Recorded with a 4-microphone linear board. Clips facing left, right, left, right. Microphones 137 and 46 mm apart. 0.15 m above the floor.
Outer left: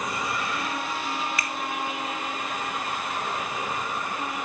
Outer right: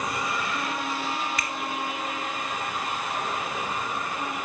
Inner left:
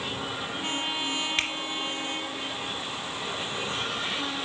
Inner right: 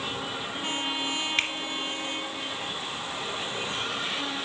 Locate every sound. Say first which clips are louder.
1.4 s a finger snap: even, inner right 2 dB; centre (ahead or behind), 1.9 m